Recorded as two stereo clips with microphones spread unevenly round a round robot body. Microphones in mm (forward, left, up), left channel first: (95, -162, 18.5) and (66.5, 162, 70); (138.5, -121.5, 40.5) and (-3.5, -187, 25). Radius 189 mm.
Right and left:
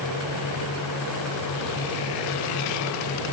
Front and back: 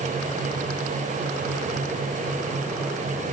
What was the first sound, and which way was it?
Only background noise.